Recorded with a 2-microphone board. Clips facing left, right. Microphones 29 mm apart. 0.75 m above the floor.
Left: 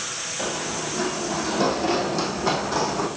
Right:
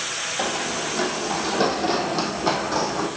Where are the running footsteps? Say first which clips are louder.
Right 2 dB; 55° right (ahead or behind), 1.6 m; by 3.1 s 10° right (ahead or behind), 2.5 m.